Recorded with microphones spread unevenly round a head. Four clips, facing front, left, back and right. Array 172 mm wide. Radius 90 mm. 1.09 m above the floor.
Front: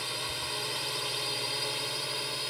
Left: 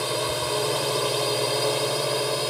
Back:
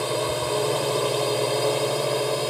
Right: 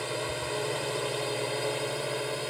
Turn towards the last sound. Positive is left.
turn(degrees=160)